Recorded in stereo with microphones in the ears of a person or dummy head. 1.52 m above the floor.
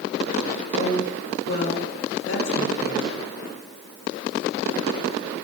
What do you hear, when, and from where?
0.7 s a woman speaking: 65° left (ahead or behind), 3.5 m; by 3.1 s 80° left, 4 m